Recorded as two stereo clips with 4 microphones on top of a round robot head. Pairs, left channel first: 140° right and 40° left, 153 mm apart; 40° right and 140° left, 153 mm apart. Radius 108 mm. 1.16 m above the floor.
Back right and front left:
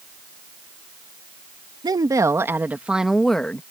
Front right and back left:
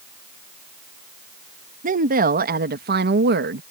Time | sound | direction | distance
1.8 | a woman speaking | 105° left | ?